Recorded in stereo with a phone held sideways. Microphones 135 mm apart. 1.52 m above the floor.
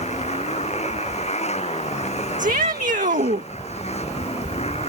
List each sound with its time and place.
0.0 s a motorcycle: 55° left (ahead or behind); by 4.9 s 50° left (ahead or behind)
2.4 s a shout: 75° right (ahead or behind)